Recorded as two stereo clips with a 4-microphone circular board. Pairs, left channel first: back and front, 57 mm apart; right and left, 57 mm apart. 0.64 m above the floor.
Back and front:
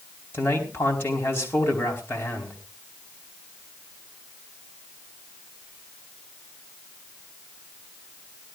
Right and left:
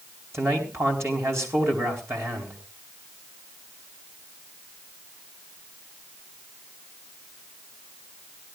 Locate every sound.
0.3 s a man speaking: 130° left, 4.5 m